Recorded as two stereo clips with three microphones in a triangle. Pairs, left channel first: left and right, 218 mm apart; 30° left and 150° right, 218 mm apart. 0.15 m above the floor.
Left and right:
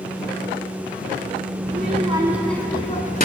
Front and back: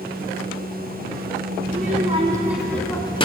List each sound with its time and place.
1.7 s a child speaking: 120° right, 1.0 m; by 3.2 s 80° left, 1.0 m